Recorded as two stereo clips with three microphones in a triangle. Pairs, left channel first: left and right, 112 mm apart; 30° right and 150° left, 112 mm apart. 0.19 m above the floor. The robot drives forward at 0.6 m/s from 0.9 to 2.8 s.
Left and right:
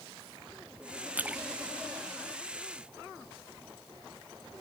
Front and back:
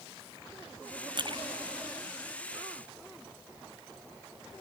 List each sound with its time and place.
1.1 s a splash: 165° right; by 2.9 s 170° right